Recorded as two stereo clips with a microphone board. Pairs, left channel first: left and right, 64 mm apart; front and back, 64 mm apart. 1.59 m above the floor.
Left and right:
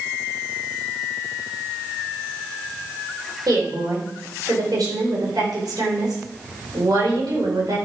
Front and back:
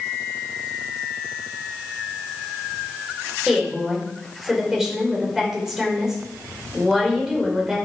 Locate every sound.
3.5 s a woman speaking: 100° right, 5 m